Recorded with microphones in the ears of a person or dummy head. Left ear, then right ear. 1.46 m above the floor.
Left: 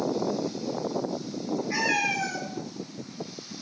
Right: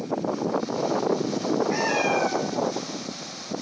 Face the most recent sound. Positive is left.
turn(degrees=-10)  # may be behind; listen again after turning